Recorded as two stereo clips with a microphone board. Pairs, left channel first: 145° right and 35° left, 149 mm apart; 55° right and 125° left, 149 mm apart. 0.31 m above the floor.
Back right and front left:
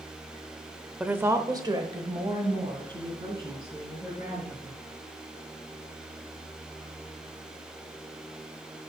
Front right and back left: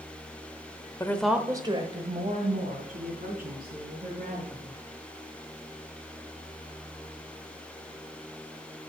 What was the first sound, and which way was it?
A woman speaking, 35° right.